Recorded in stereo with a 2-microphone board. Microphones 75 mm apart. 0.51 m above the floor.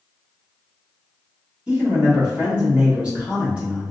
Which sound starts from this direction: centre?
A man speaking, at 1.7 s.